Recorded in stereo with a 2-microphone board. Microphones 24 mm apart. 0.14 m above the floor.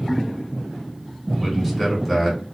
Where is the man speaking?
10° right (ahead or behind), 1.2 m.